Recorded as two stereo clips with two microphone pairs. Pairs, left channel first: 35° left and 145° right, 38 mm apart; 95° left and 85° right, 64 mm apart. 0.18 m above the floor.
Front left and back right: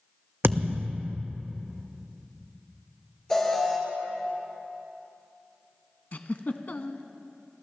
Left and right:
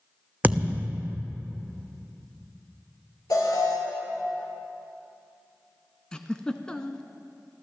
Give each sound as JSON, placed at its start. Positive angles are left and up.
{"t": 0.4, "sound": "a thud", "azimuth_deg": -150, "distance_m": 0.9}
{"t": 3.3, "sound": "an alarm", "azimuth_deg": 110, "distance_m": 2.5}
{"t": 6.1, "sound": "a giggle", "azimuth_deg": 25, "distance_m": 0.7}